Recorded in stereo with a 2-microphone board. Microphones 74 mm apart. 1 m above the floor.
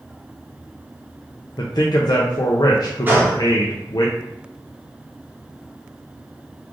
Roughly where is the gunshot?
Right.